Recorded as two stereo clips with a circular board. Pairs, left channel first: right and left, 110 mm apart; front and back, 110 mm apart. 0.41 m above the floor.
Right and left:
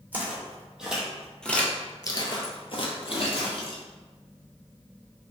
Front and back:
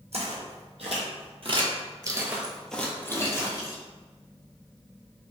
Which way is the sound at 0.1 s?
165° left.